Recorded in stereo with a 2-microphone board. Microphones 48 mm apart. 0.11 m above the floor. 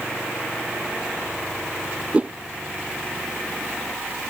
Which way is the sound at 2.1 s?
25° right (ahead or behind).